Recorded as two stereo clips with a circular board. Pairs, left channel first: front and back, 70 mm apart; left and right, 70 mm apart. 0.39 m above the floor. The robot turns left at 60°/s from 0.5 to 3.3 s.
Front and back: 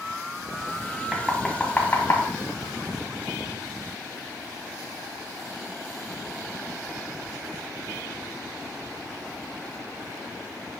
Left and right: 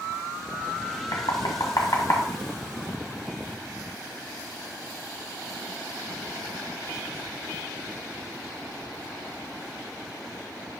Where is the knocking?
105° left, 1.5 m; by 2.3 s 35° left, 1.5 m.